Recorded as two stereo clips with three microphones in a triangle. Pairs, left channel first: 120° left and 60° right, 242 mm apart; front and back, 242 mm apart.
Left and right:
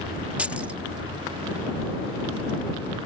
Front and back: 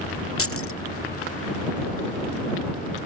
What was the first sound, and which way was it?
Keys jangling, 25° left.